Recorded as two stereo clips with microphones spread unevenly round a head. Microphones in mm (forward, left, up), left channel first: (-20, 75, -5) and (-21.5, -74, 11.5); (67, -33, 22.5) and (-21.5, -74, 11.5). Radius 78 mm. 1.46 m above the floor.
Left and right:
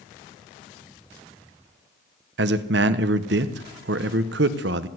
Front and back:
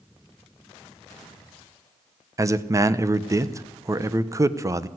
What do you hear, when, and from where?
2.4 s a man speaking: 95° right, 1.0 m